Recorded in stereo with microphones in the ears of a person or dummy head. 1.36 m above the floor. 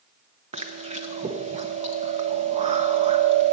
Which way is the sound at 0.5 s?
30° right (ahead or behind).